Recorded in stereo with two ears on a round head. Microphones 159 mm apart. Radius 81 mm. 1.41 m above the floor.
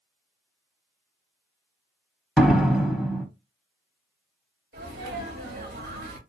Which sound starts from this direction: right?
A sneeze, at 4.7 s.